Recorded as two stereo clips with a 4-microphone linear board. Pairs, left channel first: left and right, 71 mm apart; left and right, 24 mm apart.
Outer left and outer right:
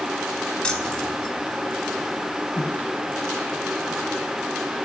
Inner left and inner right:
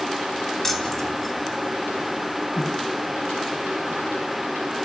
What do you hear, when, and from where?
0.6 s keys jangling: 15° left (ahead or behind), 4.5 m